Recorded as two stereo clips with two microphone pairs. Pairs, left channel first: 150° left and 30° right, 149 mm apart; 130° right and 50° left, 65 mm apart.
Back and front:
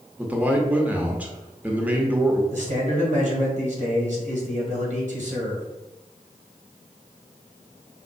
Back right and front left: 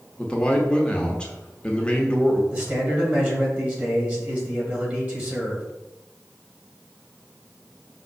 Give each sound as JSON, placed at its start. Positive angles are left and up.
{"t": 0.2, "sound": "a man speaking", "azimuth_deg": -95, "distance_m": 0.8}
{"t": 2.5, "sound": "a man speaking", "azimuth_deg": -10, "distance_m": 2.0}